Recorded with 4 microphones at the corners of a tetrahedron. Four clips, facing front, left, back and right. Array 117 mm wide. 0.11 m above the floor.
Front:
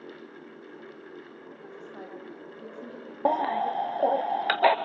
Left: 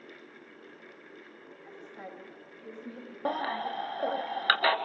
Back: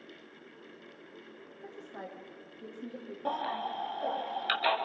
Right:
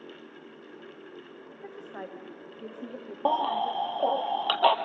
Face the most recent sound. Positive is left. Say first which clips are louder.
# right 6 dB, front 9 dB
turn(degrees=-5)